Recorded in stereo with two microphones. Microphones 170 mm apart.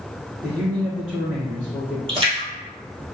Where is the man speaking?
5° right (ahead or behind), 1.5 m.